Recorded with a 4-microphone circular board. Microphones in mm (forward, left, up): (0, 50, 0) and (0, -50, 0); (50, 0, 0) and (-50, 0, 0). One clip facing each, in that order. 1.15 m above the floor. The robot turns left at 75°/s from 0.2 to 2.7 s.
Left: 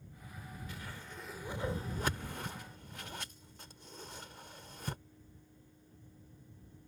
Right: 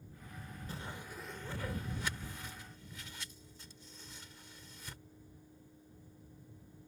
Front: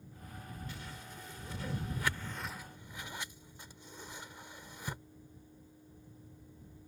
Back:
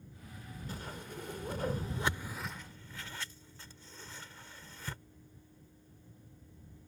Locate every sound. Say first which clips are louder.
0.7 s a whoosh: right 6 dB, back 4 dB; 140° right; by 5.0 s 70° left